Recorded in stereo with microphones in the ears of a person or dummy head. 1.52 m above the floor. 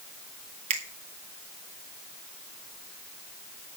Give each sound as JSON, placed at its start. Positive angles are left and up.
{"t": 0.7, "sound": "a finger snap", "side_deg": -40, "distance_m": 1.6}